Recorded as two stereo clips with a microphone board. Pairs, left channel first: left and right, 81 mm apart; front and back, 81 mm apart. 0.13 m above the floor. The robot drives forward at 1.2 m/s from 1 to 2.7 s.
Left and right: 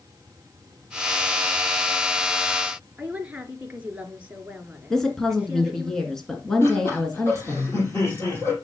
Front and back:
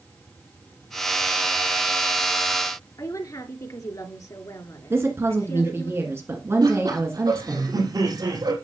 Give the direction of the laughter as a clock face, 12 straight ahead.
7 o'clock.